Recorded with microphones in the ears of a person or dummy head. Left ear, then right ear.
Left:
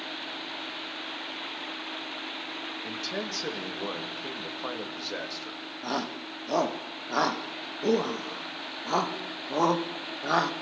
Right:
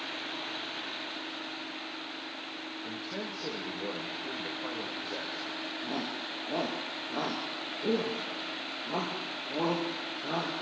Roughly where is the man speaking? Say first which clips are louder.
Left 5 dB; left.